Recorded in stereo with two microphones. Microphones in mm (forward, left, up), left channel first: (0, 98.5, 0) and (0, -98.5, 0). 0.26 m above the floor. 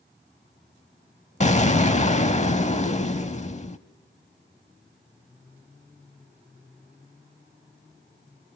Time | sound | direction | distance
1.4 | an explosion | 35° left (ahead or behind) | 0.7 m